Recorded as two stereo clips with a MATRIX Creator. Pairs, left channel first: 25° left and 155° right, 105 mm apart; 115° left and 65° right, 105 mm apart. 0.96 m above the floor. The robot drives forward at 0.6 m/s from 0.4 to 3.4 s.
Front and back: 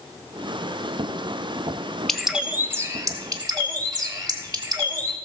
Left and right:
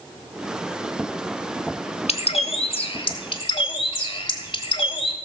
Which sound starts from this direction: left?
A bird, at 2.1 s.